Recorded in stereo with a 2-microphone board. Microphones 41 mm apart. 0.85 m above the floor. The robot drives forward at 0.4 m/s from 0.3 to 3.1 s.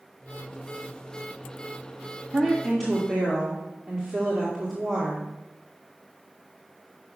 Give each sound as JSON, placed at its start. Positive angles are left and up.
{"t": 2.3, "sound": "a woman speaking", "side_deg": 0, "distance_m": 1.6}